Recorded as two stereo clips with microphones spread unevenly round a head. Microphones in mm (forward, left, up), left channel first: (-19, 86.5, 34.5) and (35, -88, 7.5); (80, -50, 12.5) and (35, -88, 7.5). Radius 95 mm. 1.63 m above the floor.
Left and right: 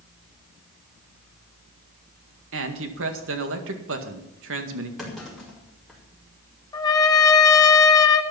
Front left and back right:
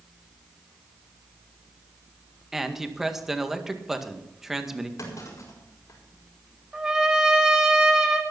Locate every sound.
2.5 s a man speaking: 55° right, 1.9 m
5.0 s a clunk: 20° left, 5 m
6.7 s a trumpet: 140° left, 1.0 m